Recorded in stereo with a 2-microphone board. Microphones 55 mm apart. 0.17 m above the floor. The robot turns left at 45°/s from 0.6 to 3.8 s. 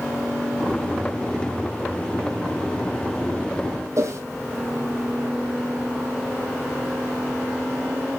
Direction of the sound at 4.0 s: 65° right (ahead or behind).